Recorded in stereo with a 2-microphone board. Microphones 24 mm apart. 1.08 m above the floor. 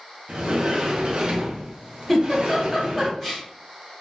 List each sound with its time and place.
0.3 s a sliding door: 50° right (ahead or behind), 0.6 m
2.1 s a giggle: 10° left (ahead or behind), 1.1 m